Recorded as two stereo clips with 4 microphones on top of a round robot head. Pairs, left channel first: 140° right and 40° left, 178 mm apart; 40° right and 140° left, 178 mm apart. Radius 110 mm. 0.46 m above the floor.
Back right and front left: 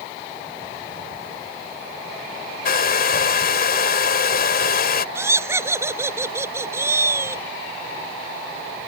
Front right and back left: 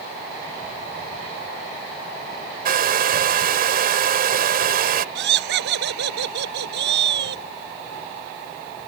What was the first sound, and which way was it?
A hair dryer, straight behind.